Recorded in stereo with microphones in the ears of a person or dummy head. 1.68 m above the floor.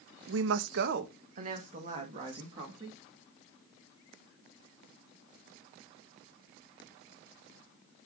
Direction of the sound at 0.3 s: 75° right (ahead or behind).